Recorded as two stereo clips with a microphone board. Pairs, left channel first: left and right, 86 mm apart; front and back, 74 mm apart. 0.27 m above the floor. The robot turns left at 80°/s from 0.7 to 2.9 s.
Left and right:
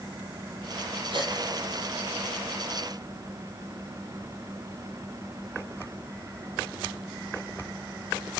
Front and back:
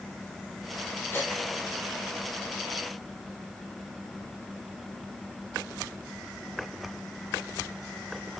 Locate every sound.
1.1 s a gasp: 60° right, 3.5 m; by 1.3 s 75° right, 3.5 m